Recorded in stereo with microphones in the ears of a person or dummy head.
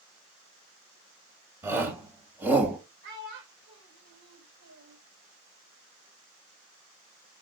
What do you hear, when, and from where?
1.6 s a shout: 15° right (ahead or behind), 3.5 m; by 2.8 s 10° right (ahead or behind), 3 m
3.0 s a child speaking: 65° right (ahead or behind), 3.5 m